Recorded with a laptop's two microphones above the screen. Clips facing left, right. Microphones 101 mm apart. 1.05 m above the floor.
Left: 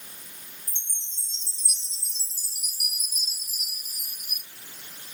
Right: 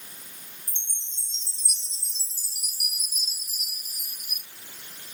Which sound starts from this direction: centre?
A chime, at 0.7 s.